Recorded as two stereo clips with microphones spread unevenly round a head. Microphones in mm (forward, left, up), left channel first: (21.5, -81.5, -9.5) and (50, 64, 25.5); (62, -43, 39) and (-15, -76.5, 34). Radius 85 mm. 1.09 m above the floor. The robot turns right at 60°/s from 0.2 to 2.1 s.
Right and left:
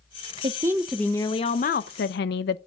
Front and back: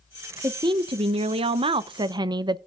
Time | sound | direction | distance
0.4 | a woman speaking | 140° left | 0.5 m